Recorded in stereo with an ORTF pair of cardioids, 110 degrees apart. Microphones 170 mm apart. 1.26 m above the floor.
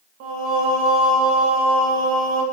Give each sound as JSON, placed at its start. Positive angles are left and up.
{"t": 0.2, "sound": "singing", "azimuth_deg": -65, "distance_m": 0.7}